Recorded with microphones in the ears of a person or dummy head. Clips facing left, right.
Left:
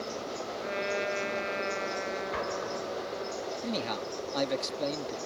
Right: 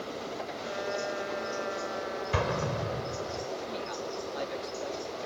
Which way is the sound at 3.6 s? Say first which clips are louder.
Left 2 dB; 60° left (ahead or behind).